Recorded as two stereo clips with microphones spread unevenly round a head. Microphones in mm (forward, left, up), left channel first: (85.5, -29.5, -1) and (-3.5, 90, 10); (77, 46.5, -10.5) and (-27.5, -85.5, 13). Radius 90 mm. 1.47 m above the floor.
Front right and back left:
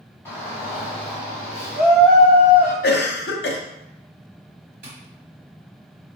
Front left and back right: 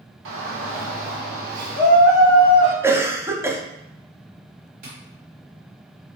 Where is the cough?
50° right, 0.7 m.